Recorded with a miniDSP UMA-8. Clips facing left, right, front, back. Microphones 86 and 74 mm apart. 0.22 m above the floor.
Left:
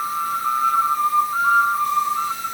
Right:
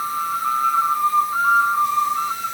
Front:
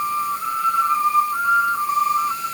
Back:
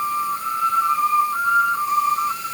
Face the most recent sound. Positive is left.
No sound to turn to.